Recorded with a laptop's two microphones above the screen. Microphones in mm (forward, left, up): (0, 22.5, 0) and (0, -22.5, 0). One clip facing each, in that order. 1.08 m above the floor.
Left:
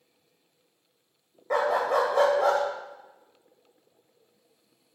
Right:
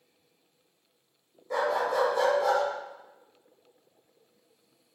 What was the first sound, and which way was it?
A dog barking, 65° left (ahead or behind).